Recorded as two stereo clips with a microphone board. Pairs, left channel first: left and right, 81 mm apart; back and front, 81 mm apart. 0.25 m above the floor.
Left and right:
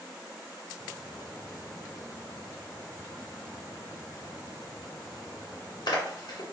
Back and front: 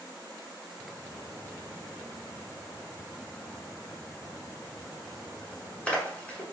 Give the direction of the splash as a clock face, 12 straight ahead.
8 o'clock.